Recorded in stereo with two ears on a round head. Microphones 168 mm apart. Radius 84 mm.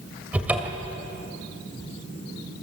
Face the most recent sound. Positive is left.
turn(degrees=-10)  # may be behind; listen again after turning